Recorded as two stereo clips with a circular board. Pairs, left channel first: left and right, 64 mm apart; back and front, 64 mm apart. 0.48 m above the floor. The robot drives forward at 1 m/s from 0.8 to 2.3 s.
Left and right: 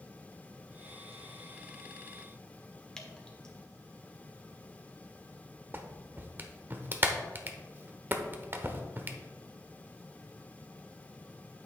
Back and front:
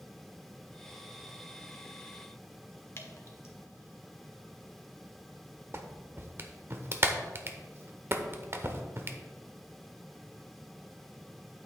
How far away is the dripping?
About 1.2 m.